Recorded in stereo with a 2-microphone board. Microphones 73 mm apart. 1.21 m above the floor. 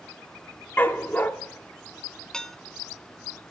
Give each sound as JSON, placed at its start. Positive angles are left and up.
{"t": 0.8, "sound": "a dog barking", "side_deg": 25, "distance_m": 1.0}
{"t": 2.3, "sound": "dishes clattering", "side_deg": 10, "distance_m": 0.8}